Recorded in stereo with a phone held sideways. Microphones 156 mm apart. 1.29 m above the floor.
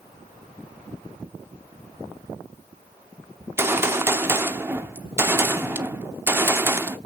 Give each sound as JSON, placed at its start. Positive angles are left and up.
{"t": 3.4, "sound": "a gunshot", "side_deg": -15, "distance_m": 0.8}